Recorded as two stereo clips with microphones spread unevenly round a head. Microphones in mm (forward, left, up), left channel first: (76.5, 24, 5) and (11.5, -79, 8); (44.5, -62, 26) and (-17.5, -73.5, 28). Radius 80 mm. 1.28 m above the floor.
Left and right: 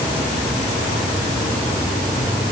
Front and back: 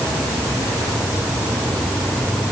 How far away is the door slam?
I don't hear a door slam.